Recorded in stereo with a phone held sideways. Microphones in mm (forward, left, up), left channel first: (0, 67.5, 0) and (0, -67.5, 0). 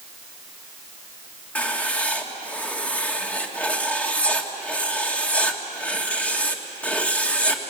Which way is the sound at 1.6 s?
10° left (ahead or behind).